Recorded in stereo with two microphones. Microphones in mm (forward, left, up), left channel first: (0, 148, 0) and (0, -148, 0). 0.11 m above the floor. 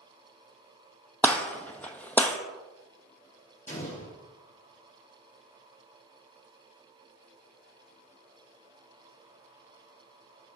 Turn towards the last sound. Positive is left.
turn(degrees=25)  # may be behind; listen again after turning